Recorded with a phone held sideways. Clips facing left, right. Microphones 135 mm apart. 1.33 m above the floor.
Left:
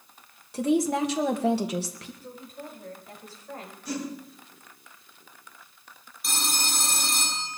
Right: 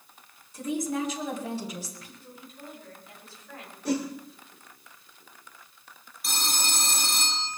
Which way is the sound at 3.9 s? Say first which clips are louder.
Right 5 dB; 80° right.